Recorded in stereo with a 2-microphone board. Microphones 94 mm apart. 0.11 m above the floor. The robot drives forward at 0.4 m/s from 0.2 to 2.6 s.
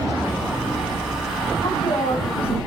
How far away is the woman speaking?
About 5 m.